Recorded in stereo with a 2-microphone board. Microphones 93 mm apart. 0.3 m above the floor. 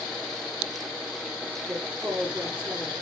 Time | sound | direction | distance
1.7 | a woman speaking | 10° right (ahead or behind) | 5 m